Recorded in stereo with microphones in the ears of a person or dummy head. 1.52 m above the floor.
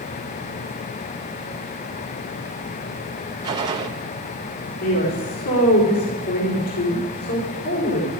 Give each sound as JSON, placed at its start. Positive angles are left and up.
{"t": 3.4, "sound": "a gunshot", "side_deg": -25, "distance_m": 1.0}
{"t": 4.8, "sound": "a woman speaking", "side_deg": 85, "distance_m": 4.5}